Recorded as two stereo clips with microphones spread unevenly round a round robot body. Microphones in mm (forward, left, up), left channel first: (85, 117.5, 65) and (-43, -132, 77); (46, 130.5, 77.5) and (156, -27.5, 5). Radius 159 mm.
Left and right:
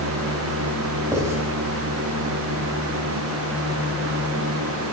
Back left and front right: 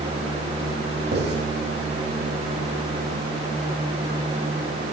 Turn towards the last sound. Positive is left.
turn(degrees=-35)